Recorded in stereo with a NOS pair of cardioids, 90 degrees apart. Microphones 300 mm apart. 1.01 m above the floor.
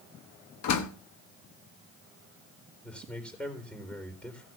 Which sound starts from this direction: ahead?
A man speaking, at 2.8 s.